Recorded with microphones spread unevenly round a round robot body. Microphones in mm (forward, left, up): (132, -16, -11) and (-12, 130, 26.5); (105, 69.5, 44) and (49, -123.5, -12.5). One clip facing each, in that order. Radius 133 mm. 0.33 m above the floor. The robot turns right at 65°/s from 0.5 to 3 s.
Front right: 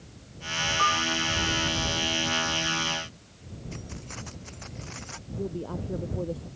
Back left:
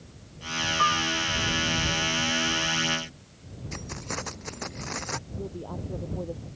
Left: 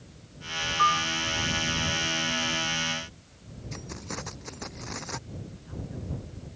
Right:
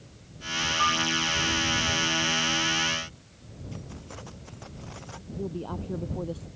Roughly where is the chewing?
No chewing in this recording.